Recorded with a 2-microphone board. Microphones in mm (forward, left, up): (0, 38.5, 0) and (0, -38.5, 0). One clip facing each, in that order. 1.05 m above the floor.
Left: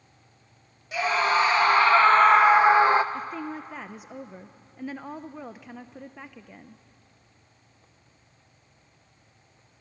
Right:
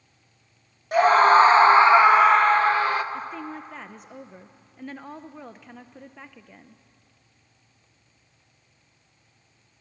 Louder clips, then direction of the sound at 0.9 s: Right 9 dB; 50° right (ahead or behind).